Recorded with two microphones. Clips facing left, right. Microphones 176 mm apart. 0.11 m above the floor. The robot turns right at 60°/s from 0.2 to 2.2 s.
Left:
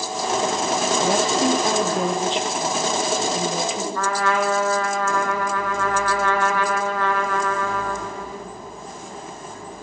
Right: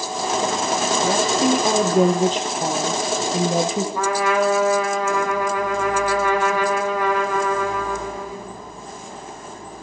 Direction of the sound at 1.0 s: 160° left.